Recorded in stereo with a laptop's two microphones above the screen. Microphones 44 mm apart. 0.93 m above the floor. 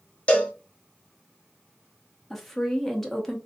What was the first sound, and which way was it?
A cowbell, 30° left (ahead or behind).